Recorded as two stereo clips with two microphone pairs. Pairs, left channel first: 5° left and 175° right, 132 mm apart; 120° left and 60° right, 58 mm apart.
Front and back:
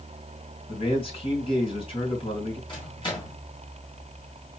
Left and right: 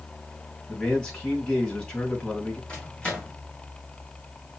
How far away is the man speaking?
About 2.5 m.